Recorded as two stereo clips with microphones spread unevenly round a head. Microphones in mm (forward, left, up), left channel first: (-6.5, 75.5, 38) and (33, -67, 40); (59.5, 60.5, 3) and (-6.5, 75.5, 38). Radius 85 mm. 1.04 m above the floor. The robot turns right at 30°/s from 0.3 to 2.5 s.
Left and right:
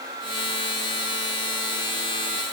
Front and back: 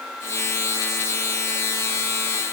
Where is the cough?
No cough in this recording.